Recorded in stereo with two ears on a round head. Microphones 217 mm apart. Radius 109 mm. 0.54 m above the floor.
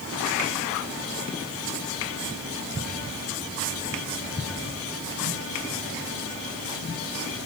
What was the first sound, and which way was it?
Only background noise.